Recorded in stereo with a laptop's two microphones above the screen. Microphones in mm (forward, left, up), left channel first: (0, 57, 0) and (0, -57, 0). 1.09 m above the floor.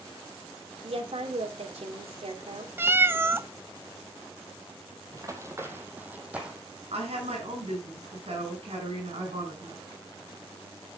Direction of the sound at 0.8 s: 75° right (ahead or behind).